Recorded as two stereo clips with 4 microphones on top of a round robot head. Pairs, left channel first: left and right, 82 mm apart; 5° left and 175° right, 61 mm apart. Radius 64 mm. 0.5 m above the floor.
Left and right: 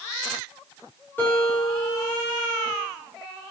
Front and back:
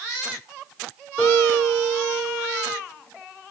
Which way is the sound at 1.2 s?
45° left.